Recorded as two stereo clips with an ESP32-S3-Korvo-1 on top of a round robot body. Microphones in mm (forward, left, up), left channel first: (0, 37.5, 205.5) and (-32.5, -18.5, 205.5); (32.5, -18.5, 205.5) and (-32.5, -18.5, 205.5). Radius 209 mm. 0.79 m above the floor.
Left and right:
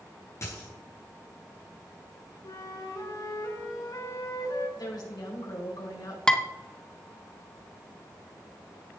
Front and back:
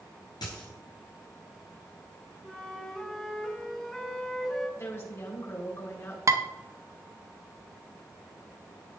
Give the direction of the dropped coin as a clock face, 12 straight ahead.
12 o'clock.